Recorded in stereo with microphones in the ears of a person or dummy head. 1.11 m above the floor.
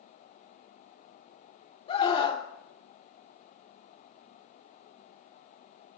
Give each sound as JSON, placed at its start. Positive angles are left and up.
{"t": 1.9, "sound": "a scream", "side_deg": 35, "distance_m": 2.5}